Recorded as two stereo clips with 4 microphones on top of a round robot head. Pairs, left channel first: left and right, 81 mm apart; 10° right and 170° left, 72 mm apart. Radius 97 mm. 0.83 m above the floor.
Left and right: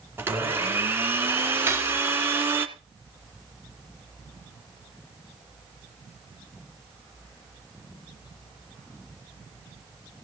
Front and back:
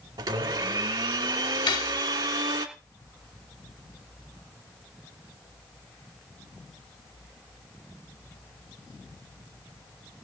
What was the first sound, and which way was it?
A blender, 150° right.